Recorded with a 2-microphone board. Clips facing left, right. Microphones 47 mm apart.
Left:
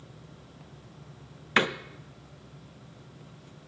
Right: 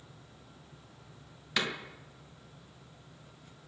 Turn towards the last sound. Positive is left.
turn(degrees=40)  # may be behind; listen again after turning